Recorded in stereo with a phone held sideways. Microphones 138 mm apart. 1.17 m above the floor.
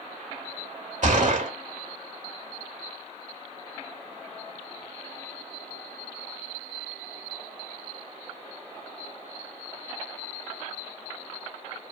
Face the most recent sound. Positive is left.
turn(degrees=-60)  # may be behind; listen again after turning